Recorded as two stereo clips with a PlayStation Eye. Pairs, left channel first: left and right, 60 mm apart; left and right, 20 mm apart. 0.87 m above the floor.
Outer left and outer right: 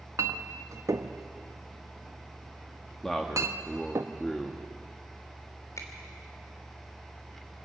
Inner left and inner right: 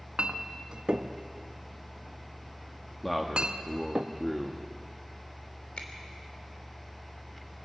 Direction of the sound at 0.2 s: 60° right (ahead or behind).